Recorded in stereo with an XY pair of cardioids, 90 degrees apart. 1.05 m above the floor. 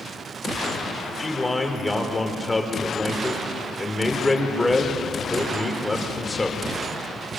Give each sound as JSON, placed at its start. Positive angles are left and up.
{"t": 1.2, "sound": "a man speaking", "azimuth_deg": 15, "distance_m": 3.5}